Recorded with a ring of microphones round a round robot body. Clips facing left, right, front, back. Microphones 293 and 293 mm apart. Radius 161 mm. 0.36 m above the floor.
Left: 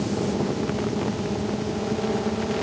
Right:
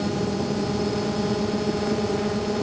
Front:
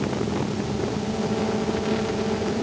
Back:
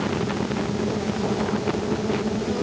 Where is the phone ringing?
No phone ringing in this recording.